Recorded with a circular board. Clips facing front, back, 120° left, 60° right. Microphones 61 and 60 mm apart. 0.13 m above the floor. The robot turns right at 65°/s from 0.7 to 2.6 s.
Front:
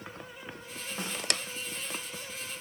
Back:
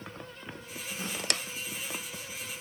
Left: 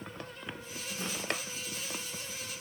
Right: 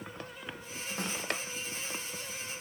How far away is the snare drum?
About 5 m.